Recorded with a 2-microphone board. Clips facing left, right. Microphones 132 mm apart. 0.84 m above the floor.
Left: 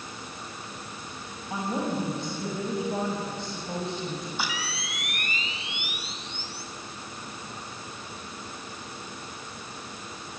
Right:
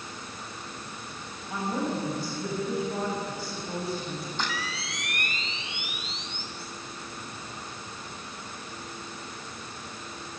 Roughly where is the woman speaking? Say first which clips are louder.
Left 1 dB; left.